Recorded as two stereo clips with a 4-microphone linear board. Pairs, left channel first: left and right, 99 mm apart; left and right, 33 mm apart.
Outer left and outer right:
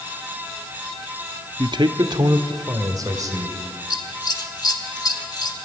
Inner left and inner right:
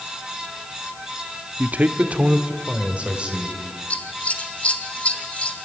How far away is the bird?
I don't hear a bird.